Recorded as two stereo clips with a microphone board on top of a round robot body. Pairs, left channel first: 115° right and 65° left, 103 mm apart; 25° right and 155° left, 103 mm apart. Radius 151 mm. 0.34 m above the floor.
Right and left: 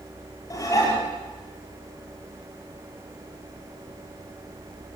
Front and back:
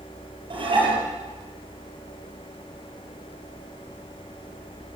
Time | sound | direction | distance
0.5 | dishes clattering | 170° right | 7 m